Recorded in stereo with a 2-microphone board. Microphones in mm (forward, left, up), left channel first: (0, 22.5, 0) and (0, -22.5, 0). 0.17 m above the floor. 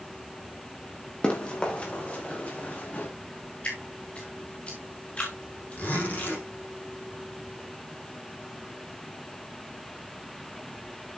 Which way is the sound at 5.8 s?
40° left (ahead or behind).